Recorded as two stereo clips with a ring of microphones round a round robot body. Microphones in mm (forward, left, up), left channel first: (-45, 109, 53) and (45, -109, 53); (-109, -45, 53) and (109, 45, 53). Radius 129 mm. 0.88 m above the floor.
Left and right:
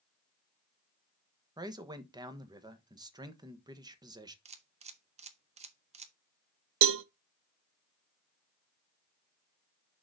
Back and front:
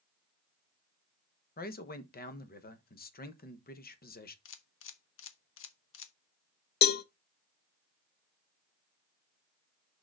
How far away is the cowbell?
About 0.5 m.